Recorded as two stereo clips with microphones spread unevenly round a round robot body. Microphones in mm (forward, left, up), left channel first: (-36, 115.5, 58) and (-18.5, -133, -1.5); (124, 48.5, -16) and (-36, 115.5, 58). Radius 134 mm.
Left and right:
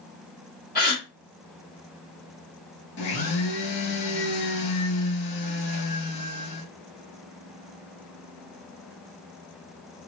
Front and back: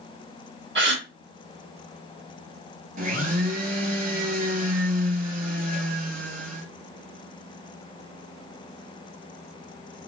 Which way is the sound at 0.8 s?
145° left.